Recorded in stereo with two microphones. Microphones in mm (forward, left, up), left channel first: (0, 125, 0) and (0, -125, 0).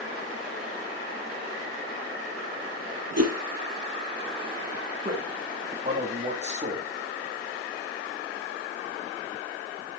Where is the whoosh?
75° right (ahead or behind), 5 m.